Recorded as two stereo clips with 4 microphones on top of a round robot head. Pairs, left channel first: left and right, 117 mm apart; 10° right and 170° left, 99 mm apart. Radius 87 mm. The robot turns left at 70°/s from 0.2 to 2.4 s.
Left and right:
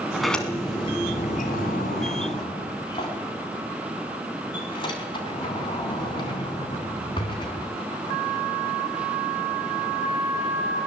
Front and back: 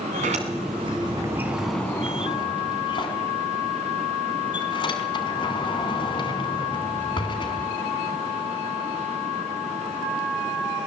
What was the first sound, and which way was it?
A sliding door, 175° right.